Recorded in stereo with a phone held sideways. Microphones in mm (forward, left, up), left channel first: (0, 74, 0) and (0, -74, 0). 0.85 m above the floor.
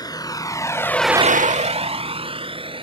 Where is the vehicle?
30° left (ahead or behind); by 2.9 s 35° right (ahead or behind).